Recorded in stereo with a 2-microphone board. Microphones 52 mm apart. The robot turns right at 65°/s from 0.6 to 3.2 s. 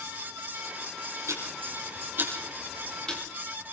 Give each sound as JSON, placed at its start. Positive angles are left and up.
{"t": 1.3, "sound": "ticking", "side_deg": -75, "distance_m": 6.0}